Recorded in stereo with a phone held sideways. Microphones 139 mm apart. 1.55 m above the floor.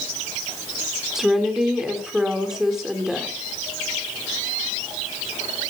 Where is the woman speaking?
5° right (ahead or behind), 4 m.